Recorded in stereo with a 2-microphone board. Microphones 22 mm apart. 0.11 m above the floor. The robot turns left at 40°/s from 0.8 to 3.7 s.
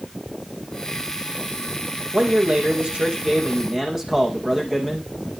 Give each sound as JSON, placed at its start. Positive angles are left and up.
{"t": 2.1, "sound": "a man speaking", "azimuth_deg": -95, "distance_m": 4.5}